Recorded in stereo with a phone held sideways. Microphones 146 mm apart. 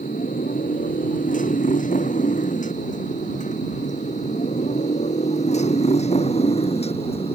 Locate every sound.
0.0 s a motorcycle: 65° left (ahead or behind); by 7.3 s 40° left (ahead or behind)